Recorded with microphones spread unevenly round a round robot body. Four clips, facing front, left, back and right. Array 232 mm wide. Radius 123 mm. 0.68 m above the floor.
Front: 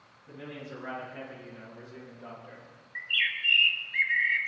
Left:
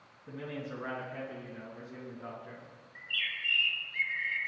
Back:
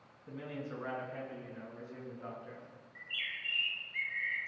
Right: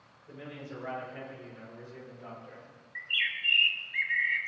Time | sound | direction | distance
0.3 | a man speaking | 115° left | 6.5 m
3.0 | a bird | 20° right | 1.9 m